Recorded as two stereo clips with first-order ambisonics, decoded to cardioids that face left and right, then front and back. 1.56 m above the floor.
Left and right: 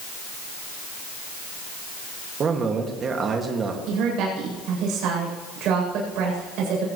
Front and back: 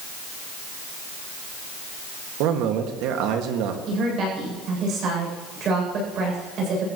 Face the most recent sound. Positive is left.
turn(degrees=-125)